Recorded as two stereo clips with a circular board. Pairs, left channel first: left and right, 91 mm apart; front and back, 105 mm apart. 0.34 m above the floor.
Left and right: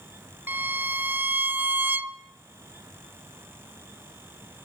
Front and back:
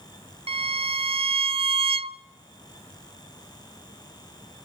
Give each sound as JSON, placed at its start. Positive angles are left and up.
{"t": 0.5, "sound": "a violin", "azimuth_deg": -155, "distance_m": 0.5}